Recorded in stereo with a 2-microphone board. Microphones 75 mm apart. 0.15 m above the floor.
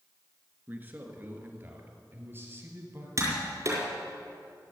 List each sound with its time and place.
0.7 s a man speaking: 25° right (ahead or behind), 2 m; by 3.1 s 30° right (ahead or behind), 3.5 m
3.2 s tapping: 40° right (ahead or behind), 4.5 m